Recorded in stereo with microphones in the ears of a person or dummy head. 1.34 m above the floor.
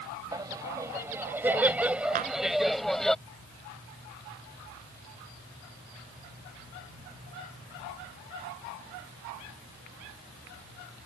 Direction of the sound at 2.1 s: 40° right (ahead or behind).